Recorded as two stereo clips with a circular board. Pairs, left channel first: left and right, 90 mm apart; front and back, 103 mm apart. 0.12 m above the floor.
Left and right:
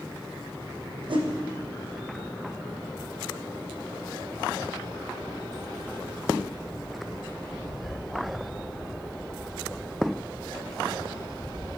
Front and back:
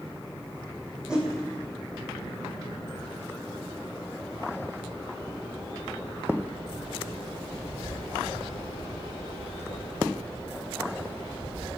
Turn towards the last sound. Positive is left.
turn(degrees=-100)